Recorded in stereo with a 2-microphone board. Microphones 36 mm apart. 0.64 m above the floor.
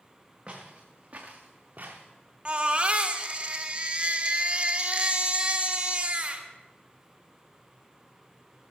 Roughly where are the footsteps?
Right.